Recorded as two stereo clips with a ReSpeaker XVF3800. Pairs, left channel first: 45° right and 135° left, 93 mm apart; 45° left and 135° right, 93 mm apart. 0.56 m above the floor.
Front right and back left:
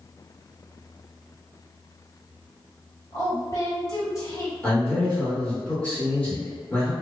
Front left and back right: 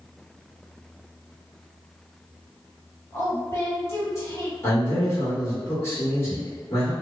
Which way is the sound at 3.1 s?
5° right.